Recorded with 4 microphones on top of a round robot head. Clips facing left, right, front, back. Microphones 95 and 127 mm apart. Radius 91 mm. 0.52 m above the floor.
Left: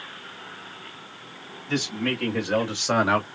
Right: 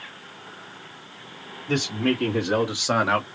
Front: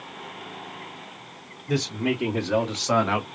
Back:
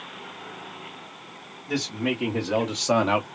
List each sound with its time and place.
1.7 s a man speaking: 90° right, 1.7 m; by 3.2 s 165° left, 1.3 m